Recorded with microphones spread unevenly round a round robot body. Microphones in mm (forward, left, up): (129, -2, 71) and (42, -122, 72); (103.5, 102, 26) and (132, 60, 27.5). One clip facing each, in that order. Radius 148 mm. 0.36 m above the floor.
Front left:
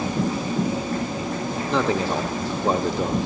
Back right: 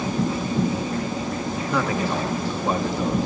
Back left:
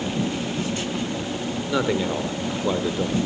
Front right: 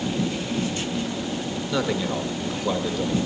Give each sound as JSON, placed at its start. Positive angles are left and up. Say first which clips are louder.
{"t": 1.7, "sound": "a man speaking", "louder": "front left 2 dB, back left 2 dB", "azimuth_deg": 70, "distance_m": 0.8}